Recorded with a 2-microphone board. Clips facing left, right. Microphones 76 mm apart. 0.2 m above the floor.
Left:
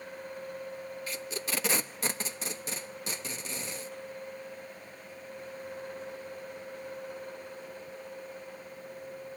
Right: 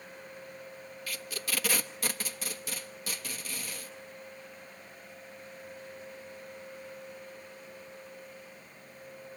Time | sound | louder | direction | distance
1.1 | tape being pulled | even | 25° left (ahead or behind) | 0.8 m